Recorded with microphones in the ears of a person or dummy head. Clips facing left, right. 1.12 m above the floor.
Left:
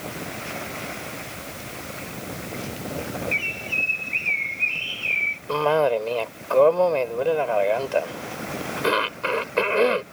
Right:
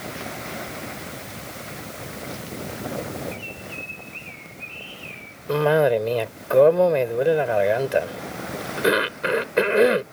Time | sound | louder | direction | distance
3.3 | a bird | left 1 dB | 80° left | ?
5.5 | a cough | right 2 dB | 20° right (ahead or behind) | ?